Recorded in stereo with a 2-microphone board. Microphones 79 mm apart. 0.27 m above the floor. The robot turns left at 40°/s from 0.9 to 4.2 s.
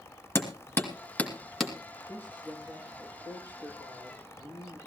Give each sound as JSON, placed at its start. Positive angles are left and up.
{"t": 0.3, "sound": "hammering", "side_deg": 30, "distance_m": 2.5}
{"t": 2.1, "sound": "a man speaking", "azimuth_deg": -5, "distance_m": 8.5}